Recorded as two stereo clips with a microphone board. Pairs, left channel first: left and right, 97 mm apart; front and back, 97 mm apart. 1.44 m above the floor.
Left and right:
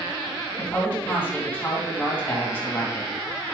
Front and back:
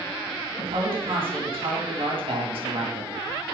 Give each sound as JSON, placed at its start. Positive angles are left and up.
{"t": 0.6, "sound": "a woman speaking", "azimuth_deg": 160, "distance_m": 3.0}